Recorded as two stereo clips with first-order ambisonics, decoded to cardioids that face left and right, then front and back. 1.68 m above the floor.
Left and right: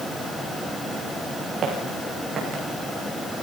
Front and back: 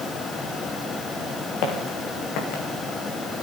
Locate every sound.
1.6 s footsteps: 30° right, 6.5 m; by 2.6 s 20° right, 6.5 m